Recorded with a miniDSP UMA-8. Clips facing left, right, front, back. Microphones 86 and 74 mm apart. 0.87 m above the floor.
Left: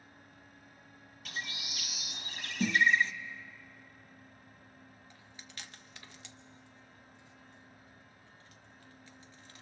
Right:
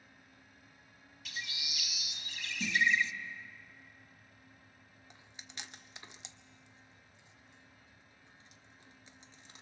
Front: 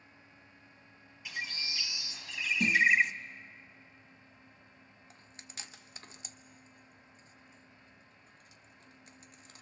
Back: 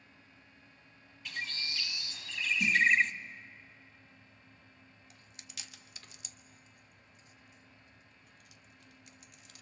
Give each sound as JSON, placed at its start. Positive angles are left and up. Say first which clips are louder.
{"t": 1.2, "sound": "a bird", "louder": "left 3 dB, even", "azimuth_deg": 80, "distance_m": 0.9}
{"t": 2.6, "sound": "a snare drum", "louder": "left 4 dB, front 1 dB", "azimuth_deg": 45, "distance_m": 0.7}
{"t": 5.1, "sound": "chewing", "louder": "right 3 dB, front 3 dB", "azimuth_deg": -30, "distance_m": 0.9}